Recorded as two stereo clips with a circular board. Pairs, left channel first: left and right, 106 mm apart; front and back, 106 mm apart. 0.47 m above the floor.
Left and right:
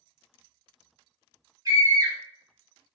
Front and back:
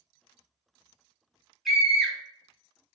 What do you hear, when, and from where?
1.6 s a scream: 90° right, 0.8 m